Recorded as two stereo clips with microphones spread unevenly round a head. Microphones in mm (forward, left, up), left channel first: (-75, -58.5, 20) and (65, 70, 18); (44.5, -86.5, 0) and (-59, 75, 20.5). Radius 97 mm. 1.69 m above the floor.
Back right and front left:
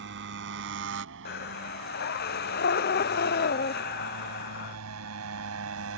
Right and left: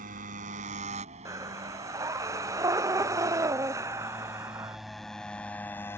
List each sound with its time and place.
0.0 s a motorcycle: 75° left; by 6.0 s 25° left
1.2 s breathing: 170° right